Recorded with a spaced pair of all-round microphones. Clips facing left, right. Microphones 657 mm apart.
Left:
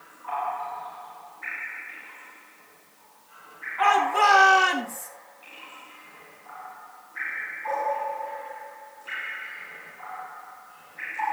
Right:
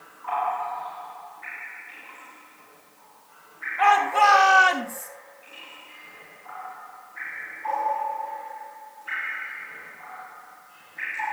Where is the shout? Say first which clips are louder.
Right 1 dB; 20° right (ahead or behind), 5.5 m.